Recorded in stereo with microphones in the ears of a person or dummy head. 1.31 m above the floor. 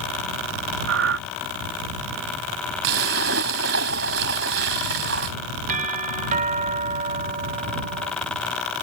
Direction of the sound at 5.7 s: 40° right (ahead or behind).